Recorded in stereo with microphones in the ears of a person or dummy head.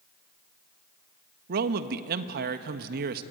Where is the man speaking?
55° right (ahead or behind), 1.4 m.